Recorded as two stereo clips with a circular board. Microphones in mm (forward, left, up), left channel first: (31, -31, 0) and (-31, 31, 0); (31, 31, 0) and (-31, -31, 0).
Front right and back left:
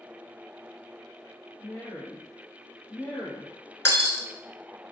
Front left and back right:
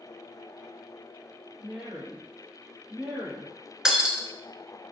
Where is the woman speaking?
55° right, 1.3 m.